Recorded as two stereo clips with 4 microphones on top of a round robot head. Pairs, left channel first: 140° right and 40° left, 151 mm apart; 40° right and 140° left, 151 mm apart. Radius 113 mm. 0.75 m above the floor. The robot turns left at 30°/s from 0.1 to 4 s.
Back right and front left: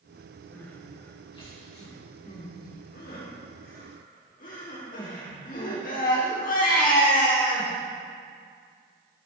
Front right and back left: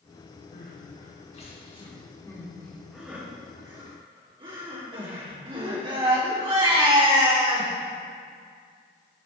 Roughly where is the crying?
Ahead right.